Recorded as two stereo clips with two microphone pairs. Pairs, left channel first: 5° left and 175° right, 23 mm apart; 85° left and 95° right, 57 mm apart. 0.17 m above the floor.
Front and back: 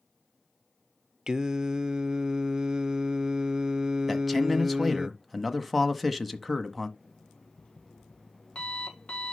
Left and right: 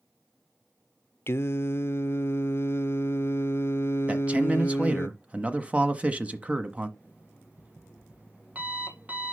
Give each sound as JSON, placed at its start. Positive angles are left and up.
{"t": 1.3, "sound": "singing", "azimuth_deg": 130, "distance_m": 0.6}
{"t": 4.1, "sound": "a man speaking", "azimuth_deg": -80, "distance_m": 1.2}
{"t": 7.0, "sound": "an alarm clock", "azimuth_deg": -30, "distance_m": 3.5}